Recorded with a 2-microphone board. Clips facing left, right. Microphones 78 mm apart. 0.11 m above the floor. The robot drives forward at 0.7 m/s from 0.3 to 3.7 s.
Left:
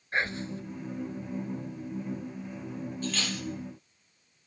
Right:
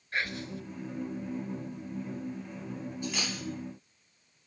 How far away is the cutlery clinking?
About 2.5 m.